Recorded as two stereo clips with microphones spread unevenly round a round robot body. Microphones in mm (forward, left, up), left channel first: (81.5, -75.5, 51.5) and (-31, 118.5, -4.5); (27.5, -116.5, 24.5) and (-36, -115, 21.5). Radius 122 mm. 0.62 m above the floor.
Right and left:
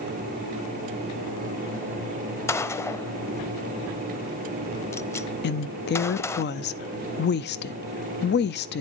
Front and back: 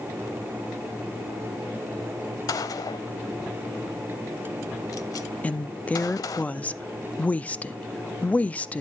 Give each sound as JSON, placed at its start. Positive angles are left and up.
{"t": 2.5, "sound": "a gunshot", "azimuth_deg": 10, "distance_m": 0.6}
{"t": 5.4, "sound": "a woman speaking", "azimuth_deg": -50, "distance_m": 0.7}